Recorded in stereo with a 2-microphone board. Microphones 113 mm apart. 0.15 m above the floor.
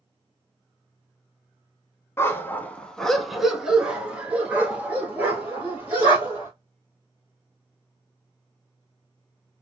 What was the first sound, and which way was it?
A dog barking, 25° left (ahead or behind).